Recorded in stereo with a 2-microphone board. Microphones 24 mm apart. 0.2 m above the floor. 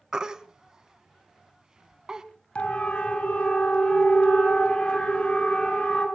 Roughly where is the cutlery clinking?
I don't hear cutlery clinking.